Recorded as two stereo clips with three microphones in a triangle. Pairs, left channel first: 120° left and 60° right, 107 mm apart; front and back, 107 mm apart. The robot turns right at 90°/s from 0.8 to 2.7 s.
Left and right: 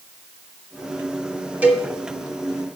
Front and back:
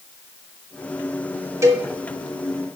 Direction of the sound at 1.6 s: 130° right.